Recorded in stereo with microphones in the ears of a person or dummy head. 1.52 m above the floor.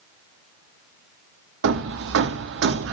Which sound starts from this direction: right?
Hammering, at 1.6 s.